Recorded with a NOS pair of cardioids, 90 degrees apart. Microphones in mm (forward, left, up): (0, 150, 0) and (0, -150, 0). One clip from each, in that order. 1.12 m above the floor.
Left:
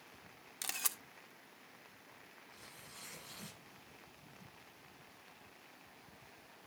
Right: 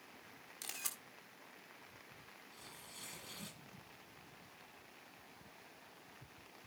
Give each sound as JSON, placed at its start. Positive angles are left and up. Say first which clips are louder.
{"t": 0.6, "sound": "a camera shutter", "louder": "left 5 dB", "azimuth_deg": 40, "distance_m": 1.6}
{"t": 2.5, "sound": "tearing paper", "louder": "even", "azimuth_deg": -20, "distance_m": 7.5}